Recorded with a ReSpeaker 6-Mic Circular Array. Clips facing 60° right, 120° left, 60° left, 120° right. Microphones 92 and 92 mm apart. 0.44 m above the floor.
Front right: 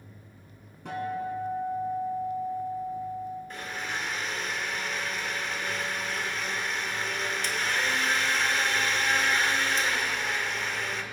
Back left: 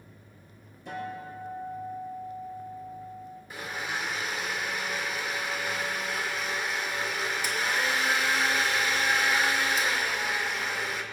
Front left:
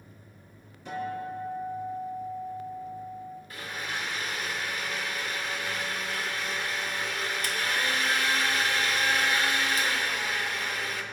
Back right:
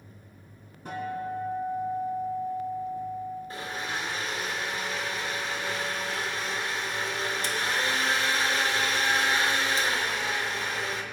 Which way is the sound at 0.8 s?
75° right.